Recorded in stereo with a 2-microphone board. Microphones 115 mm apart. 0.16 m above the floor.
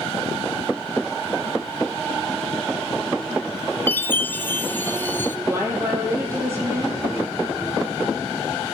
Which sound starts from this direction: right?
A woman speaking, at 5.5 s.